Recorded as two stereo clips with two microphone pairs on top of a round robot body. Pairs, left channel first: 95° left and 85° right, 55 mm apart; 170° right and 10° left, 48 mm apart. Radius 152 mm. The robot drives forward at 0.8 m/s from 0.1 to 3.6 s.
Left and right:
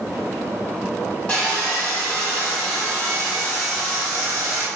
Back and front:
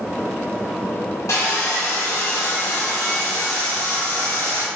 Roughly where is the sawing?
Behind.